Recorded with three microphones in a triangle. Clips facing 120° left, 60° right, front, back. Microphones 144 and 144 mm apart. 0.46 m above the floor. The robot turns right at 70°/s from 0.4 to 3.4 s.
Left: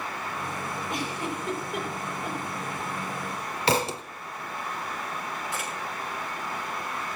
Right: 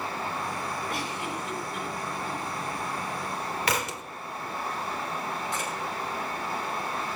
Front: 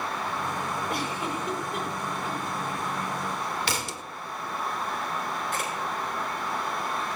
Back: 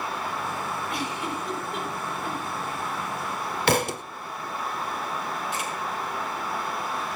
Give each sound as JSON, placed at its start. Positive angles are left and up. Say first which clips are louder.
{"t": 0.9, "sound": "a giggle", "louder": "left 1 dB, even", "azimuth_deg": 45, "distance_m": 3.5}
{"t": 3.7, "sound": "a thud", "louder": "left 8 dB, back 9 dB", "azimuth_deg": 175, "distance_m": 0.6}
{"t": 5.5, "sound": "a camera shutter", "louder": "right 2 dB, even", "azimuth_deg": 35, "distance_m": 6.5}